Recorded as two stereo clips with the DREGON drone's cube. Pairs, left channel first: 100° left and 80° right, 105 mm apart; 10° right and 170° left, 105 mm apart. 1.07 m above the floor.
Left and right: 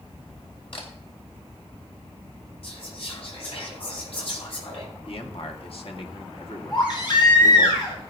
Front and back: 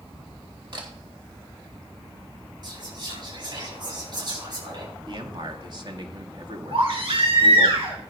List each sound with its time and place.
0.7 s a camera shutter: 130° left, 3 m
2.6 s whispering: 125° left, 8 m
5.1 s a man speaking: 125° left, 1.9 m
6.7 s a baby crying: 140° left, 5 m